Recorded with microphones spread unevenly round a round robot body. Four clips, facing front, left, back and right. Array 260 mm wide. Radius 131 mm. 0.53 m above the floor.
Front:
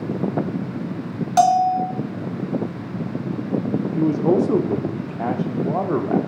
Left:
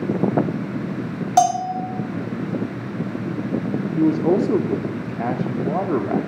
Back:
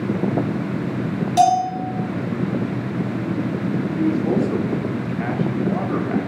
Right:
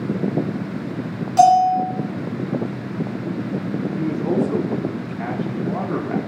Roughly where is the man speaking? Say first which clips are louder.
Left 5 dB, front 2 dB; ahead left.